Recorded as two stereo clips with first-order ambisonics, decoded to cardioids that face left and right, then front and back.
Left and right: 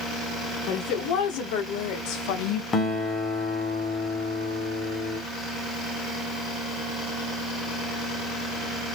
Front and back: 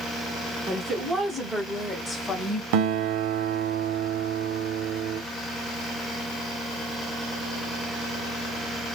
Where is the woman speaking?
100° left, 1.9 m; by 2.6 s 65° left, 0.9 m.